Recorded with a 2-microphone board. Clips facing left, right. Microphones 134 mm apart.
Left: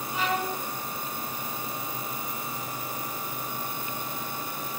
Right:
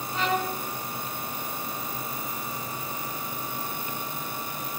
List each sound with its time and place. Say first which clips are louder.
0.1 s a violin: right 2 dB; 10° left (ahead or behind), 3 m